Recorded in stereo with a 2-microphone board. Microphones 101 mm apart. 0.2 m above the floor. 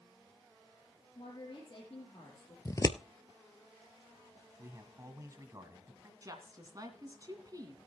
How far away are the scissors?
About 0.6 m.